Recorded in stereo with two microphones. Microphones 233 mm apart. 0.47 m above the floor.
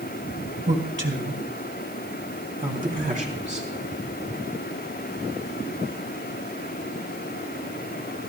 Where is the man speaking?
60° right (ahead or behind), 2.5 m; by 3.7 s 30° right (ahead or behind), 4 m.